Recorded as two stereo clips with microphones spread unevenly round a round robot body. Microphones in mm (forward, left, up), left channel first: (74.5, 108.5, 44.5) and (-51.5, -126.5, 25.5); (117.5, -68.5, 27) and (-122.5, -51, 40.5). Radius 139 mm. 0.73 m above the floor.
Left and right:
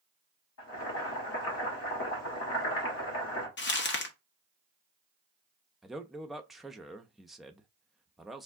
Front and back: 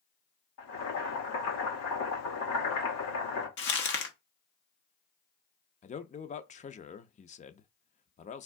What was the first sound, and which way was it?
Boiling, 25° left.